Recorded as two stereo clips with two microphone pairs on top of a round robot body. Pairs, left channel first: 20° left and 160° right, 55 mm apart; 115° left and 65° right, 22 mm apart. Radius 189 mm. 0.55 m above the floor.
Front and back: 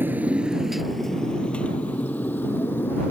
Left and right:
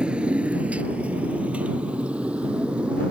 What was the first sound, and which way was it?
A motorcycle, 110° right.